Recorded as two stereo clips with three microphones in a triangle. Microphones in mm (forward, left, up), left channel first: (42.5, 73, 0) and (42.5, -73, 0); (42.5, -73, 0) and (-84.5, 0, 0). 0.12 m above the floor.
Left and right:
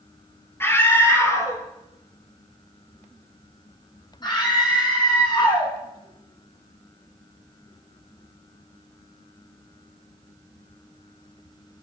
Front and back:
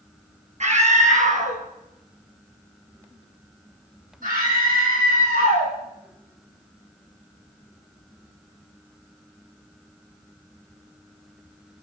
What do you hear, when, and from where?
0.6 s a scream: 160° left, 2.5 m; by 5.7 s 145° left, 6.5 m